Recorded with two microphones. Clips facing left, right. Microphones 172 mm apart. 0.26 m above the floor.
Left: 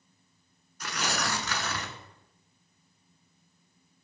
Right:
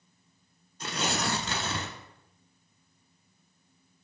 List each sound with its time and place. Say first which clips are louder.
0.8 s tearing paper: right 2 dB; 25° right (ahead or behind), 0.9 m